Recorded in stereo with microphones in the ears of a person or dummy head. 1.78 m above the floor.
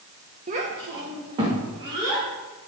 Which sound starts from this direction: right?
A child speaking, at 0.5 s.